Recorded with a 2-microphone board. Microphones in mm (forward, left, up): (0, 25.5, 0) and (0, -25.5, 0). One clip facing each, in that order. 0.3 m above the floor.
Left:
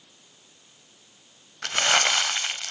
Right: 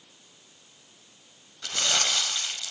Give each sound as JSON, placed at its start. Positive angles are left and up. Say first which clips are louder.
{"t": 1.6, "sound": "crumpling", "louder": "left 6 dB", "side_deg": 60, "distance_m": 0.5}